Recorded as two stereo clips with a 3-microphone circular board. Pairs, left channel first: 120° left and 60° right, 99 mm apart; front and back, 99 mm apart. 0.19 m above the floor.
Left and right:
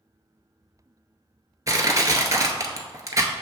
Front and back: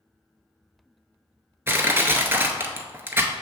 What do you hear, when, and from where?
1.7 s crushing: 115° right, 0.5 m